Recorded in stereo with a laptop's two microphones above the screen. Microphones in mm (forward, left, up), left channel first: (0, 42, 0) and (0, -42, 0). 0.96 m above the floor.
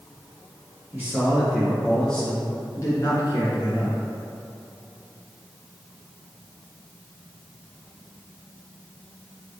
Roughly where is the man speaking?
Right.